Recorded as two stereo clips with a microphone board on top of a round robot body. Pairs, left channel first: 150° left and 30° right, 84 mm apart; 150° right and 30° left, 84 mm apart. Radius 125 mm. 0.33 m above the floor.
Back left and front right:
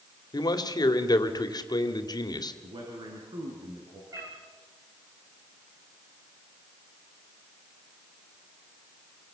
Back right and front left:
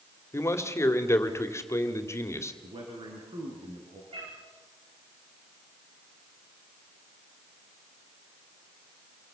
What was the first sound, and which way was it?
A man speaking, 160° left.